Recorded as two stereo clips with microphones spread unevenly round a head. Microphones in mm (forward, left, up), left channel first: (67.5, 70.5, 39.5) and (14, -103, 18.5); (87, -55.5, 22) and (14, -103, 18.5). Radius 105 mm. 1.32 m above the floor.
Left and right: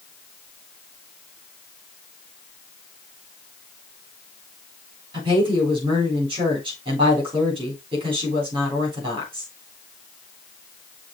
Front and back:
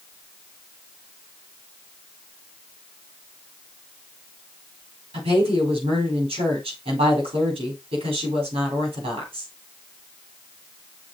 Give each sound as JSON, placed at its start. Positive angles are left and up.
{"t": 5.1, "sound": "a woman speaking", "azimuth_deg": -175, "distance_m": 3.5}